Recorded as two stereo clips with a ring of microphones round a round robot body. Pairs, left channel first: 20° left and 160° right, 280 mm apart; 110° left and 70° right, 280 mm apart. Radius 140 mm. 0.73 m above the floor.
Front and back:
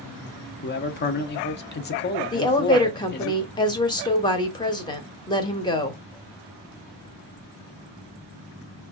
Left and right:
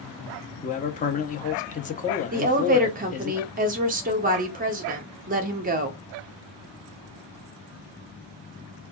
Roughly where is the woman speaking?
Ahead right.